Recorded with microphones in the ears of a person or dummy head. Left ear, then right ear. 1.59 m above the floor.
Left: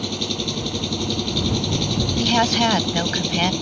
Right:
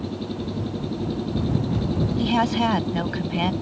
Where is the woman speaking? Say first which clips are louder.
Left 4 dB; 25° left (ahead or behind).